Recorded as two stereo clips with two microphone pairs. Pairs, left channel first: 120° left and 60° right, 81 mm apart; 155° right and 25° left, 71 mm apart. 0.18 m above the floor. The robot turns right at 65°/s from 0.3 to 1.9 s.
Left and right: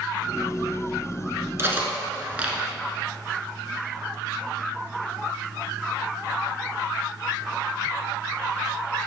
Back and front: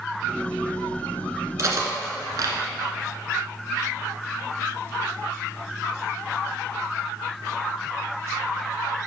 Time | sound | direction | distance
1.6 | cutlery clinking | 10° right | 1.1 m